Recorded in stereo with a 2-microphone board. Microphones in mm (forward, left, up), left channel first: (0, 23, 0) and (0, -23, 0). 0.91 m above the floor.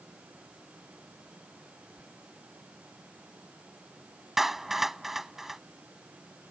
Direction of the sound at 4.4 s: 5° right (ahead or behind).